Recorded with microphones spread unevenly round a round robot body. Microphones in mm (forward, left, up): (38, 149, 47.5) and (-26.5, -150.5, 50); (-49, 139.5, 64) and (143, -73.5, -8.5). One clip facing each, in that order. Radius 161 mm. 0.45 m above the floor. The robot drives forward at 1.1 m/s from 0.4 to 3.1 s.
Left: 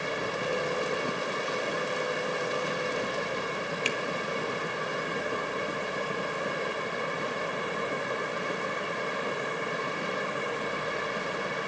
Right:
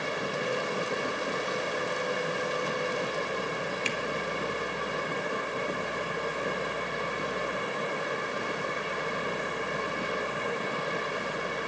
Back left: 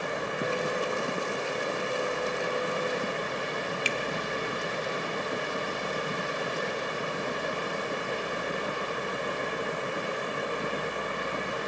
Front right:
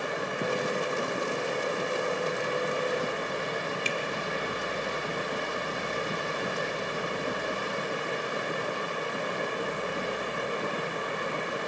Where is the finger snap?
115° left, 0.9 m.